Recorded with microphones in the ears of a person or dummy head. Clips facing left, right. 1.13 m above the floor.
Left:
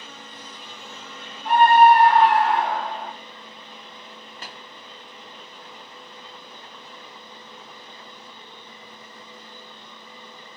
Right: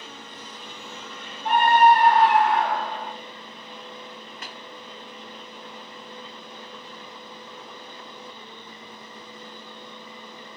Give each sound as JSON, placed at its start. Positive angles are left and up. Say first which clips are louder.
{"t": 1.4, "sound": "a scream", "louder": "left 3 dB", "side_deg": 75, "distance_m": 1.1}
{"t": 4.4, "sound": "tapping", "louder": "left 2 dB", "side_deg": 30, "distance_m": 0.6}